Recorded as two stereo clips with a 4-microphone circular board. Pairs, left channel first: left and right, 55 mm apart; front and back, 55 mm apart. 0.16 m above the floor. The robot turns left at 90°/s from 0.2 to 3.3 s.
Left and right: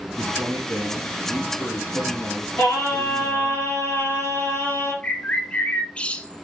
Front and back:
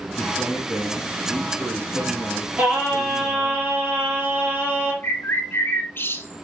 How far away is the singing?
About 3.5 m.